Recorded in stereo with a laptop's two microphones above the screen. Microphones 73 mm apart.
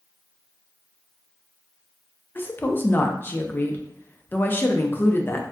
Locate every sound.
2.4 s a woman speaking: 30° left (ahead or behind), 0.6 m